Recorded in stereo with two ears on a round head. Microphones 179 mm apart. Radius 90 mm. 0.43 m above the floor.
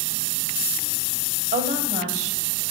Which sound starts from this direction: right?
A woman speaking, at 1.5 s.